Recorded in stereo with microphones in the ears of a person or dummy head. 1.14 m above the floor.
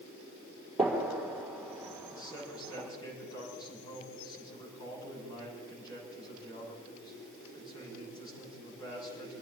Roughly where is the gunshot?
Centre.